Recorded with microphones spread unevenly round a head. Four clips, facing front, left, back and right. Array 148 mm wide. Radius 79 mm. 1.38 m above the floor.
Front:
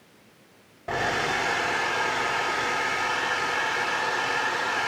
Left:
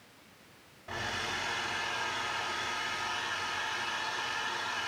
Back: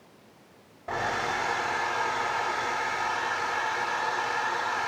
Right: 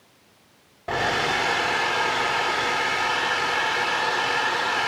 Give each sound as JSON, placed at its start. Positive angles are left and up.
{"t": 0.9, "sound": "a hair dryer", "azimuth_deg": -60, "distance_m": 0.6}